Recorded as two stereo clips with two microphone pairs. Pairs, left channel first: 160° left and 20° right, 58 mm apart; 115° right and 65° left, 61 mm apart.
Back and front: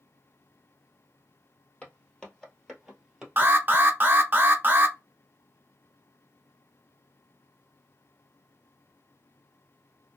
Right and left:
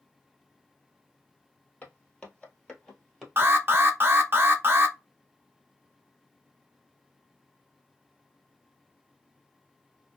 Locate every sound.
1.8 s footsteps: 155° right, 1.6 m; by 3.9 s 5° left, 1.6 m
3.4 s an alarm: 25° left, 0.5 m